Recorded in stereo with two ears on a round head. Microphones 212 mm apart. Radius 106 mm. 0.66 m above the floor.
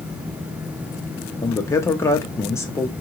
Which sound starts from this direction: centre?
A man speaking, at 1.4 s.